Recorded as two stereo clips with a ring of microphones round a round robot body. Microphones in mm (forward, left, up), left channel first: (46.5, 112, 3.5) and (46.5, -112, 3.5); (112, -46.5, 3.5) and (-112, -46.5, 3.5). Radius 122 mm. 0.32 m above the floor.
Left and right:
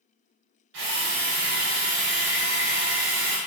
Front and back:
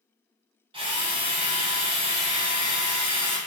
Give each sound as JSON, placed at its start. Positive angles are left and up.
{"t": 0.7, "sound": "a drill", "azimuth_deg": -115, "distance_m": 2.5}